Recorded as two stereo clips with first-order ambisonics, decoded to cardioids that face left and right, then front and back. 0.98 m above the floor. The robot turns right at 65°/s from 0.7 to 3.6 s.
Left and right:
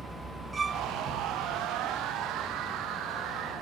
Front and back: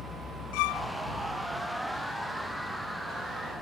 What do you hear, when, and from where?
0.5 s a violin: 10° right; by 0.9 s straight ahead